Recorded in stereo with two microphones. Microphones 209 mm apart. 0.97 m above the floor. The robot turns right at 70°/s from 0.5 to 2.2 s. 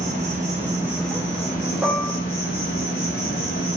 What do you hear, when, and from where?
0.0 s an insect: 35° right, 1.0 m; by 3.8 s 85° left, 1.0 m
1.8 s dishes clattering: 5° right (ahead or behind), 0.6 m; by 2.1 s 15° left (ahead or behind), 0.6 m